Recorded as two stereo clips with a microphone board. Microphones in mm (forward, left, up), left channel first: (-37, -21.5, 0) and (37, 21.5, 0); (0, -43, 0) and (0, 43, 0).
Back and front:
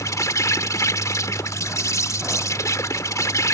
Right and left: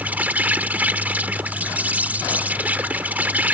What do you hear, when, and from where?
0.0 s an insect: 160° left